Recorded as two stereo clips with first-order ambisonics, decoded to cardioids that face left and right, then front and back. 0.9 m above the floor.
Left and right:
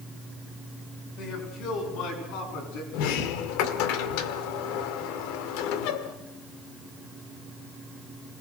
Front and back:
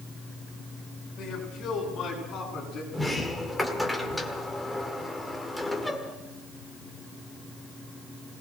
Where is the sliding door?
85° left, 1.6 m.